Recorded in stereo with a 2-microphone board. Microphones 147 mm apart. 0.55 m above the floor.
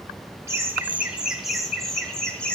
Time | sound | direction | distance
0.5 | laughter | 20° right (ahead or behind) | 1.0 m